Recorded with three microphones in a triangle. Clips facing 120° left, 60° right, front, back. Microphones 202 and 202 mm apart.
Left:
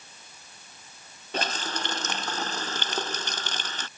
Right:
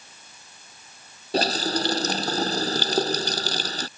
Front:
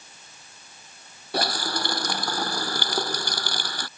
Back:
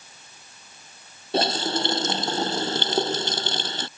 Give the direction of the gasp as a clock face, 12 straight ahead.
I don't hear a gasp.